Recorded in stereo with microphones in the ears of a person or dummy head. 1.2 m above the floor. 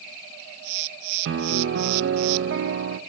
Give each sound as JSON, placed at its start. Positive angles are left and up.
{"t": 1.2, "sound": "a piano", "side_deg": -60, "distance_m": 0.6}